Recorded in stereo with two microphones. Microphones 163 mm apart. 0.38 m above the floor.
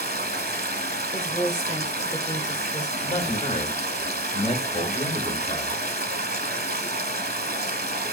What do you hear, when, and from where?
0.0 s running water: 85° right, 0.8 m
1.1 s a woman speaking: 25° left (ahead or behind), 1.4 m
3.0 s a man speaking: 40° left (ahead or behind), 1.4 m